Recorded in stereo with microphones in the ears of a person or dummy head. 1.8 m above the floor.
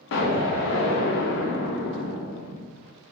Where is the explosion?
60° left (ahead or behind), 0.7 m.